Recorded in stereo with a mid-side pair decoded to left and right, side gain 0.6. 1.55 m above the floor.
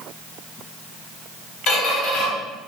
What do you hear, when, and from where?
1.7 s a squeak: 65° left, 2.0 m